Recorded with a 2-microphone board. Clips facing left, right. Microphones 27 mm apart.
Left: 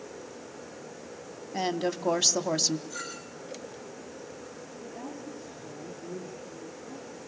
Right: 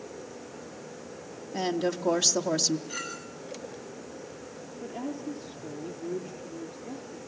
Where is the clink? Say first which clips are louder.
Right 2 dB; 55° right (ahead or behind), 8.5 m.